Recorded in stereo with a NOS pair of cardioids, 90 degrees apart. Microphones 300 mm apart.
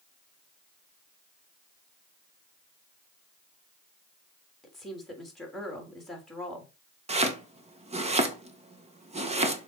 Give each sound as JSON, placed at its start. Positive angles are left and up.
{"t": 4.6, "sound": "a woman speaking", "azimuth_deg": 0, "distance_m": 3.5}
{"t": 7.1, "sound": "chopping", "azimuth_deg": -20, "distance_m": 1.6}